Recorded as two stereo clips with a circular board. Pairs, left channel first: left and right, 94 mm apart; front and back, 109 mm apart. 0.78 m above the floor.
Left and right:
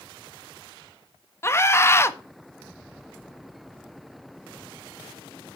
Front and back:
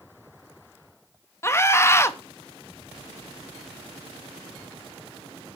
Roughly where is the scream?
Ahead left.